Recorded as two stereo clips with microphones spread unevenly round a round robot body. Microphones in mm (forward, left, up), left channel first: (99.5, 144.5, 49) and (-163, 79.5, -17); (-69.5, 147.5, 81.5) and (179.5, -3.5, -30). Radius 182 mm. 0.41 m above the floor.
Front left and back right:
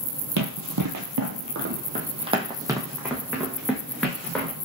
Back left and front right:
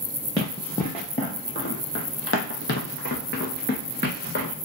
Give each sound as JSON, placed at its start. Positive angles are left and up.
{"t": 0.4, "sound": "running footsteps", "azimuth_deg": -135, "distance_m": 0.6}